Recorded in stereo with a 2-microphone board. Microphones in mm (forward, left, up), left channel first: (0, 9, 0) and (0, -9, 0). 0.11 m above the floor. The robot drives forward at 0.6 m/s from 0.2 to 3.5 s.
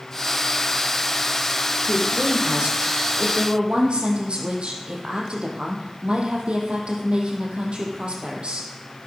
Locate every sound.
1.9 s a woman speaking: 55° right (ahead or behind), 4.5 m; by 8.7 s 65° right (ahead or behind), 4 m